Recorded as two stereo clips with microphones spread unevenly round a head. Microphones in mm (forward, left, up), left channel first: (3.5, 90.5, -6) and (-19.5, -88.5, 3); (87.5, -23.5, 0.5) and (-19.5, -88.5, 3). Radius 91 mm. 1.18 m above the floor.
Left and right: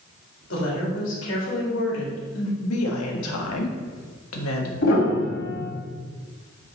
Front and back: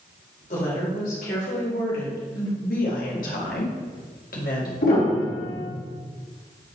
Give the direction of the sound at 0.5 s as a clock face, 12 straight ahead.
10 o'clock.